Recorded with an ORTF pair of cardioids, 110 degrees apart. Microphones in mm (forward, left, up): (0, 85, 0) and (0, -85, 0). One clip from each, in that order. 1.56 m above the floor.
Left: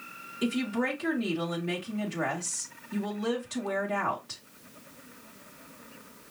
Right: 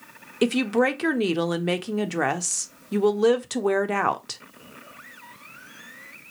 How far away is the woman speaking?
About 0.9 m.